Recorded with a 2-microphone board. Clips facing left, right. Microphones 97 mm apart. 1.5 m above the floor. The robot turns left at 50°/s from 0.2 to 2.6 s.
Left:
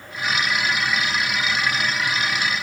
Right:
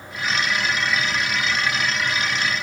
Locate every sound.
Only background noise.